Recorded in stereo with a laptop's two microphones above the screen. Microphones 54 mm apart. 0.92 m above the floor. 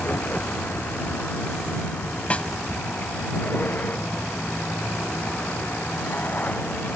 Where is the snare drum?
25° left (ahead or behind).